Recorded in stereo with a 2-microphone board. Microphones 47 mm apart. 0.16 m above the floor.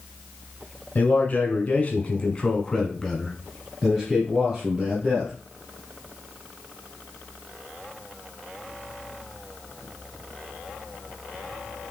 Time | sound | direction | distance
0.9 | a man speaking | 40° left (ahead or behind) | 1.5 m